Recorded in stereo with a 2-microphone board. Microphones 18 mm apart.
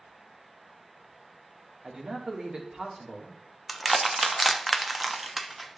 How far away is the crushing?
About 0.7 m.